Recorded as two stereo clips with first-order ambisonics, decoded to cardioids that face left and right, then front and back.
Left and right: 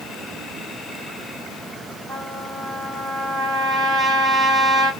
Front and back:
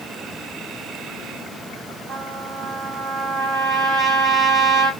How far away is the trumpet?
About 1.6 m.